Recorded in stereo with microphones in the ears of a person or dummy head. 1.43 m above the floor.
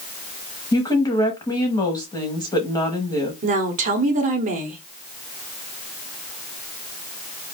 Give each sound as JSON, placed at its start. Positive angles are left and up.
{"t": 0.7, "sound": "a woman speaking", "side_deg": 15, "distance_m": 1.2}
{"t": 3.4, "sound": "a woman speaking", "side_deg": -45, "distance_m": 1.1}